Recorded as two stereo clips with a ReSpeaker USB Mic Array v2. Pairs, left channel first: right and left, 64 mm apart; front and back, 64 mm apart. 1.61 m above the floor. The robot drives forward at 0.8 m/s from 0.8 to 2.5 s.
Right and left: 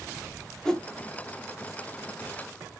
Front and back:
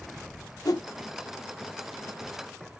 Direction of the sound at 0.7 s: 10° right.